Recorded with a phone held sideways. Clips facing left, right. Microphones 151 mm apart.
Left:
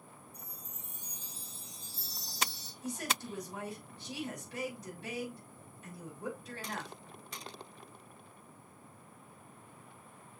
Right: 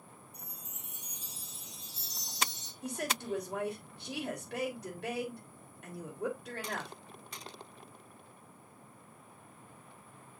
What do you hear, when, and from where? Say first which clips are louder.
0.3 s a chime: even; 70° right (ahead or behind), 1.2 m
2.8 s a woman speaking: right 2 dB; 70° right (ahead or behind), 3.5 m